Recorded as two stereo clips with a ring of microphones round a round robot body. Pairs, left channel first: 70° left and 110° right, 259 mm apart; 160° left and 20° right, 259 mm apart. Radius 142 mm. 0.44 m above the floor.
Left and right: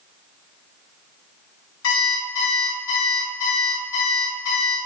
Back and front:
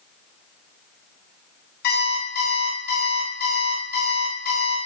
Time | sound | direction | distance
1.8 | an alarm clock | 105° left | 1.9 m